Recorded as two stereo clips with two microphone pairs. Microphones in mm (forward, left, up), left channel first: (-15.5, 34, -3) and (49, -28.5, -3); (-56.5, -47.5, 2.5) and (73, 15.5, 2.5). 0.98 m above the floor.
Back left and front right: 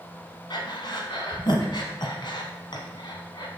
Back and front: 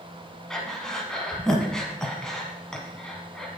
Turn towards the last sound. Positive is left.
turn(degrees=120)